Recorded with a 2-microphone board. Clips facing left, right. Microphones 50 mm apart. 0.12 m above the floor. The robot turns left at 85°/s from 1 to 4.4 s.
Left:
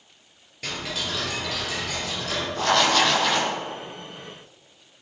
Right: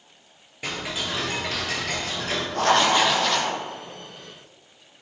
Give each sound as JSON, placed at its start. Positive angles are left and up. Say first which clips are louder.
{"t": 0.6, "sound": "ticking", "louder": "right 1 dB", "azimuth_deg": -20, "distance_m": 2.0}
{"t": 2.5, "sound": "writing", "louder": "right 1 dB", "azimuth_deg": -125, "distance_m": 1.6}